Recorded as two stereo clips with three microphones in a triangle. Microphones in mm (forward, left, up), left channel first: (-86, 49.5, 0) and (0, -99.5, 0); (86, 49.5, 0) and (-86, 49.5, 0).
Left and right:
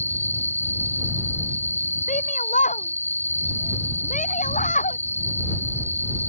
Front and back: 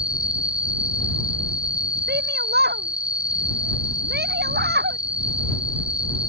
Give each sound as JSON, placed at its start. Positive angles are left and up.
{"t": 0.0, "sound": "an insect", "azimuth_deg": 170}
{"t": 2.1, "sound": "a shout", "azimuth_deg": 165}